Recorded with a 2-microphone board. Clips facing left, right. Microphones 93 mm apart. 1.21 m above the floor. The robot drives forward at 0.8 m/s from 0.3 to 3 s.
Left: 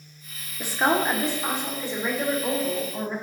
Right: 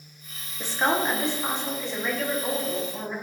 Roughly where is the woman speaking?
Centre.